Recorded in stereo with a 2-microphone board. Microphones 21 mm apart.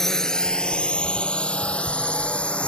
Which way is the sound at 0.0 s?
20° left (ahead or behind).